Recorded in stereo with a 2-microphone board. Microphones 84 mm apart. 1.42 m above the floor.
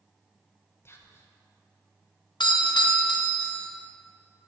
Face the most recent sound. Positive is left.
turn(degrees=65)  # may be behind; listen again after turning